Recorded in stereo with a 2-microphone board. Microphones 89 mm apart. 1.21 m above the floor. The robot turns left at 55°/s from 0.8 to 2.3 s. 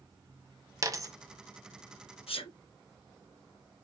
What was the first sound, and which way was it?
A dropped coin, 35° right (ahead or behind).